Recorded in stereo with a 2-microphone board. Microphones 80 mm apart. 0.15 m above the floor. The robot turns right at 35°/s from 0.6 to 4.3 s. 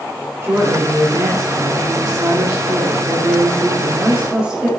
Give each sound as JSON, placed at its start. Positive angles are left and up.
{"t": 0.4, "sound": "a woman speaking", "azimuth_deg": -140, "distance_m": 2.5}